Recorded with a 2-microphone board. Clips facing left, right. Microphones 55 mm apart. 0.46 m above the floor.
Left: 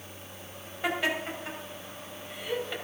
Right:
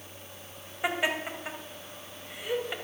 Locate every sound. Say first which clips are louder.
0.8 s laughter: even; 15° right (ahead or behind), 2.5 m